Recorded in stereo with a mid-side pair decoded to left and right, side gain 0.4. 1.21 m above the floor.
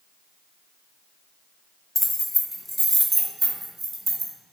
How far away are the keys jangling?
About 0.9 m.